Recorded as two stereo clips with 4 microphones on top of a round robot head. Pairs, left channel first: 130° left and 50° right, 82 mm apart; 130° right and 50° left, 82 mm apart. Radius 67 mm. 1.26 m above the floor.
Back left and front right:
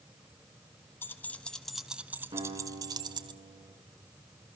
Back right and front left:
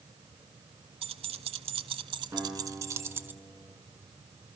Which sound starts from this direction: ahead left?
Keys jangling, at 1.0 s.